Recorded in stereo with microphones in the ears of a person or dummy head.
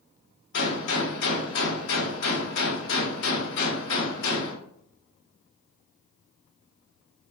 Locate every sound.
0.5 s a gunshot: 60° left (ahead or behind), 0.9 m